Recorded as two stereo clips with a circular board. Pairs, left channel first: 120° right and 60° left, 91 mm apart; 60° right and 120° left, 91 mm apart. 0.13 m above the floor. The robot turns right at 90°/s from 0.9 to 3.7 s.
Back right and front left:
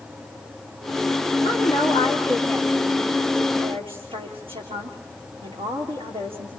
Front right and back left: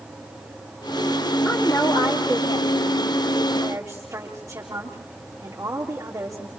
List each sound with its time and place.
1.4 s a woman speaking: 140° right, 7 m; by 6.5 s 65° left, 7 m